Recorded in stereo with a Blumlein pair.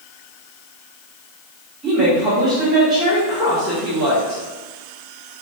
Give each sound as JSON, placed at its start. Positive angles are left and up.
{"t": 1.8, "sound": "a woman speaking", "azimuth_deg": -15, "distance_m": 1.4}